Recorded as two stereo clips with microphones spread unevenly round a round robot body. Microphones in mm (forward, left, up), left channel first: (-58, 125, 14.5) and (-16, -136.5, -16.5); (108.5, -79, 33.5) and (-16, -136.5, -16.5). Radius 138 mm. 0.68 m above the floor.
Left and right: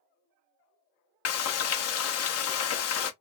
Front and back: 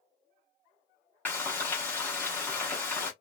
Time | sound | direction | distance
1.2 | frying | 120° left | 0.7 m